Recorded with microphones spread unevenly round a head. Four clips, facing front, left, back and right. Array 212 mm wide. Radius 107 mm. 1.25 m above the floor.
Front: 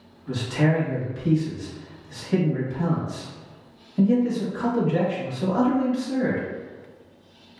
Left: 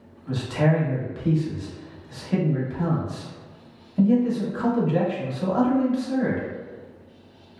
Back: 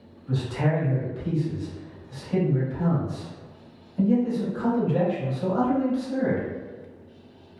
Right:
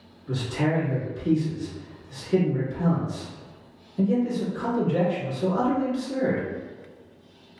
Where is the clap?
I don't hear a clap.